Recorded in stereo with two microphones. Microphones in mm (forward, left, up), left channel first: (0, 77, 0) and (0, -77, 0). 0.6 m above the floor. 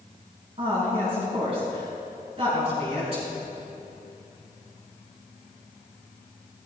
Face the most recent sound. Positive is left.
turn(degrees=-40)  # may be behind; listen again after turning